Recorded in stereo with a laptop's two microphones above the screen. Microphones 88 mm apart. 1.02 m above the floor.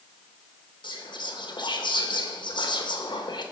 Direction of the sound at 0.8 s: 60° left (ahead or behind).